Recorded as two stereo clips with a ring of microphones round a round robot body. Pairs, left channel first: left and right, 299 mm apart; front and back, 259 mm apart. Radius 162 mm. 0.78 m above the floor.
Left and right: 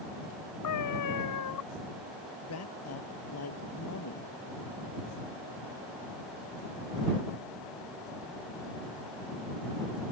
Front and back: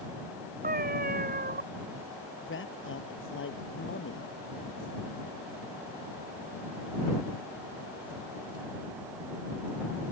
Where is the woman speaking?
45° left.